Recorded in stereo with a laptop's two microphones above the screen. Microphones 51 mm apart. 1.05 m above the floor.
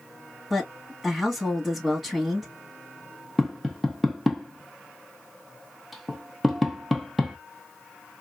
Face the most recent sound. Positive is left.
turn(degrees=0)  # may be behind; listen again after turning